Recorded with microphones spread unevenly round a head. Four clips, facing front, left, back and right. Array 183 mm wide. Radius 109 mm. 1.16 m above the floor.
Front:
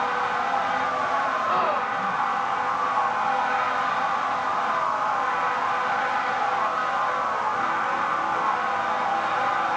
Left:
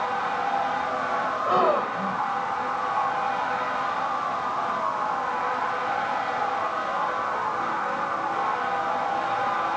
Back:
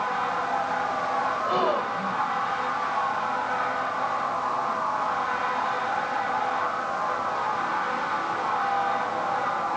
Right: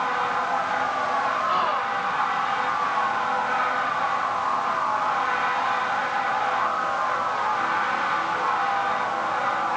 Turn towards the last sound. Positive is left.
turn(degrees=110)